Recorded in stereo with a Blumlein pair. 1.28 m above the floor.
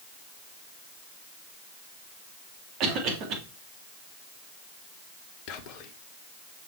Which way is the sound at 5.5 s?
40° left.